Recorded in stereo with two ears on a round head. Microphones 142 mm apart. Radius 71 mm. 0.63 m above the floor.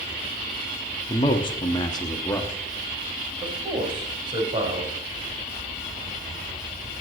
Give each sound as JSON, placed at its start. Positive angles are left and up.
{"t": 1.1, "sound": "a man speaking", "side_deg": 30, "distance_m": 1.1}
{"t": 3.4, "sound": "a man speaking", "side_deg": -30, "distance_m": 2.5}